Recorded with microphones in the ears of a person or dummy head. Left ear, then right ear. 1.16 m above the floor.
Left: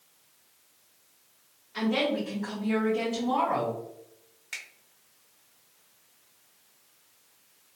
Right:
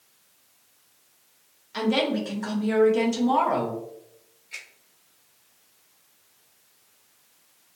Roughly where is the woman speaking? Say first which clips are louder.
Right 3 dB; right.